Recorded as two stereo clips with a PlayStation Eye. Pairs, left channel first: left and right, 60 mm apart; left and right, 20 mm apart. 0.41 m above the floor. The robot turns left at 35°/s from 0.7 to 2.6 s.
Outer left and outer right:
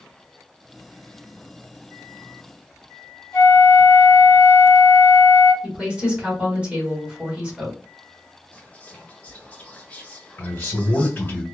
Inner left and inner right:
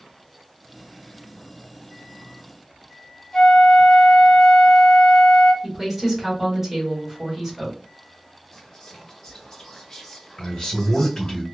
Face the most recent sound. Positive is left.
turn(degrees=35)  # may be behind; listen again after turning